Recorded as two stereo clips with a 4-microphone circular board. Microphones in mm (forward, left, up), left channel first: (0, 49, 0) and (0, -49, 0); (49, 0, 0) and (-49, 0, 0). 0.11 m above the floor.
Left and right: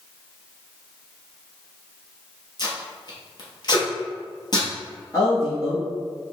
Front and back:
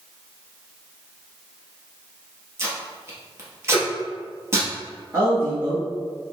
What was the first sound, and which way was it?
Tape being pulled, 120° left.